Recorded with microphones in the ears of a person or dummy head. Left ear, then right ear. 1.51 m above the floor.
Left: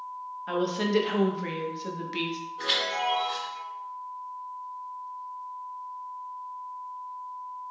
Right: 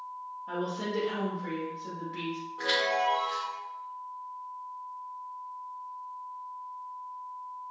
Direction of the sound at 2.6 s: 25° right (ahead or behind).